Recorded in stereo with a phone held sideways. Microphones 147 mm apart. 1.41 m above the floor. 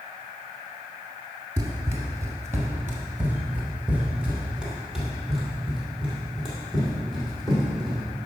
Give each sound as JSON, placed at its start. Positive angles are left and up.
{"t": 1.6, "sound": "running footsteps", "side_deg": -20, "distance_m": 1.4}